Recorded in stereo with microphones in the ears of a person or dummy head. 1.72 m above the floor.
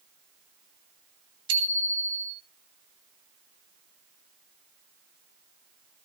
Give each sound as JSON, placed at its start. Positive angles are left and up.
{"t": 1.5, "sound": "a bicycle bell", "side_deg": -80, "distance_m": 5.5}